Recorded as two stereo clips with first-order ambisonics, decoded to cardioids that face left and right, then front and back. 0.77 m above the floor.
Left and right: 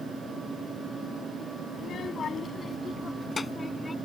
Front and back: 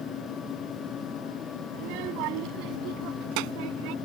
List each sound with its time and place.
1.7 s a child speaking: 155° left; by 3.9 s 175° left